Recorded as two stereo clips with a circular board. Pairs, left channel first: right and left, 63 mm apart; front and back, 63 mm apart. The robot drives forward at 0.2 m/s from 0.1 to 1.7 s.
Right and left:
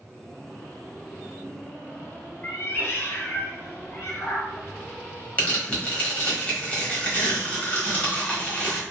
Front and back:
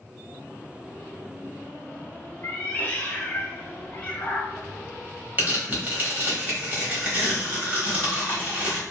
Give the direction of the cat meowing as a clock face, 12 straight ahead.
2 o'clock.